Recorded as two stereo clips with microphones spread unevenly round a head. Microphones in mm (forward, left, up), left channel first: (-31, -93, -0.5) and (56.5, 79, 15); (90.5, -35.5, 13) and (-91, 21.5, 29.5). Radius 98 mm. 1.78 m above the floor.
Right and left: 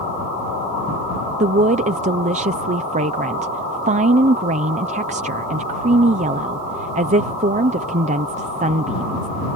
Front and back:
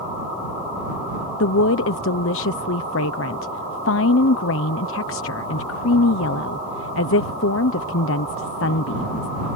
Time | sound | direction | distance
1.4 | a woman speaking | 10° left | ?